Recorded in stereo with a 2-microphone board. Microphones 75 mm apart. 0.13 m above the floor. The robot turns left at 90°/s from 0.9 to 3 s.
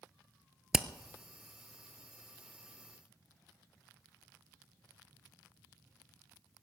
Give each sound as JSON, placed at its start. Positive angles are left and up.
{"t": 0.7, "sound": "hammering", "side_deg": -10, "distance_m": 0.7}